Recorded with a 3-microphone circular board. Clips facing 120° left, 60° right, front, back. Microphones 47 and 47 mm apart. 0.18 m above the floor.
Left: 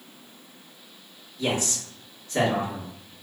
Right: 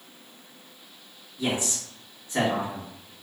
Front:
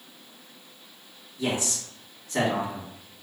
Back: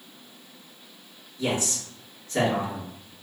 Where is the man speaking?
30° right, 1.6 m.